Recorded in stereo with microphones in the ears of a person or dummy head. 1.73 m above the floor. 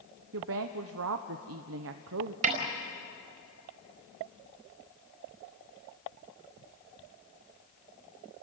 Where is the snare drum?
45° right (ahead or behind), 4.5 m.